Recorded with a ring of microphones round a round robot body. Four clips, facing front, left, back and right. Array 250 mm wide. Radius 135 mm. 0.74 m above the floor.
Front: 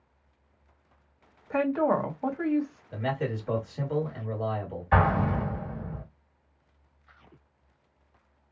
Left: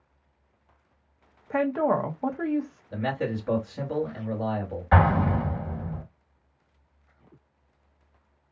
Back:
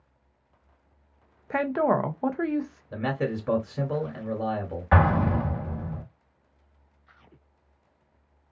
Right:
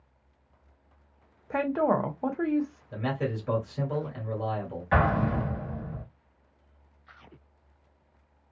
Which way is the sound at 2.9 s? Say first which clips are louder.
Left 3 dB, back 3 dB; 165° left.